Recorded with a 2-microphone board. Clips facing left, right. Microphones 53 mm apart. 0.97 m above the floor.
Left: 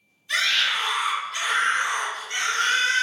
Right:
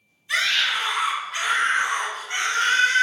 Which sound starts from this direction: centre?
A scream, at 0.3 s.